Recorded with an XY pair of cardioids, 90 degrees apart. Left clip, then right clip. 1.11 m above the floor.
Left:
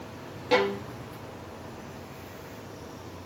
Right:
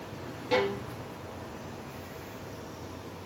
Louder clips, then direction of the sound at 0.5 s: Left 3 dB; 45° left.